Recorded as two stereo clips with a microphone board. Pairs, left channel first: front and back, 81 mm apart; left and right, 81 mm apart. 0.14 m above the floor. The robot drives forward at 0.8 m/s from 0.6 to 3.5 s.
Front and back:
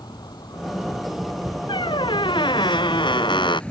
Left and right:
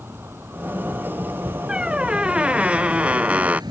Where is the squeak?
10° right; by 3.6 s 15° right.